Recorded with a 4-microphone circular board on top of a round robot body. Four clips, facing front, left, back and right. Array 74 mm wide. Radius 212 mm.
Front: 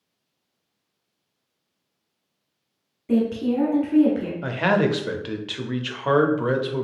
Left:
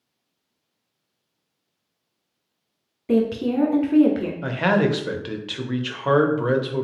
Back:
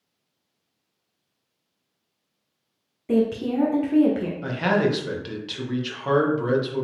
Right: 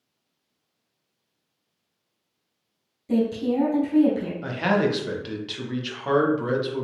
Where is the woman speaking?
100° left, 1.3 m.